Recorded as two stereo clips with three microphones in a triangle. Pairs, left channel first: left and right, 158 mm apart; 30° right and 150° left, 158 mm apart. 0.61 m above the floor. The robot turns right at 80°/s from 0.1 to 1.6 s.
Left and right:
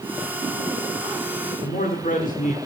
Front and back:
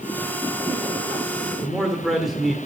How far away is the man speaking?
About 1.3 m.